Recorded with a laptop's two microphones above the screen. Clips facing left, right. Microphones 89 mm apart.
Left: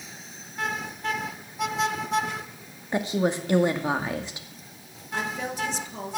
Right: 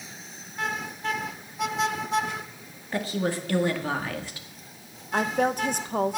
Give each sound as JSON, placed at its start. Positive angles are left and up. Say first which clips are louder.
{"t": 2.9, "sound": "a woman speaking", "louder": "left 3 dB", "side_deg": 20, "distance_m": 1.8}
{"t": 5.1, "sound": "a woman speaking", "louder": "right 6 dB", "side_deg": -50, "distance_m": 0.9}